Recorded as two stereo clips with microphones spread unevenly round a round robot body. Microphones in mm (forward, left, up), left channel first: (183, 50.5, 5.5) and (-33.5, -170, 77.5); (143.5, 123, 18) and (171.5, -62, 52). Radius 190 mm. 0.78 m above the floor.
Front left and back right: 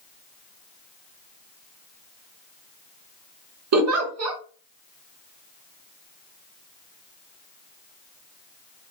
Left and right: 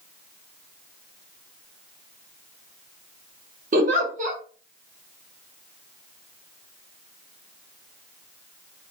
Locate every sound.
3.7 s a giggle: 115° right, 1.1 m